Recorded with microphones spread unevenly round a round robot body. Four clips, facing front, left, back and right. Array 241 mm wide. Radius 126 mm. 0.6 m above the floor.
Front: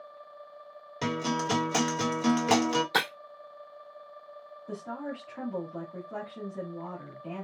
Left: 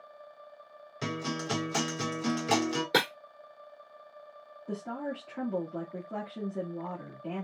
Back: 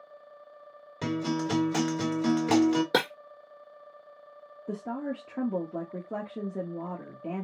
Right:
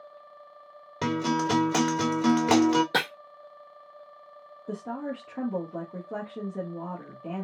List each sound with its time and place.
1.0 s a guitar: 80° right, 1.5 m
2.9 s breaking glass: 175° left, 1.9 m
4.7 s a woman speaking: 160° right, 1.4 m